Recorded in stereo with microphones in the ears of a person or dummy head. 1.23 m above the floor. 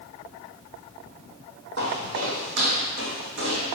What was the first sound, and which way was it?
Footsteps, 50° right (ahead or behind).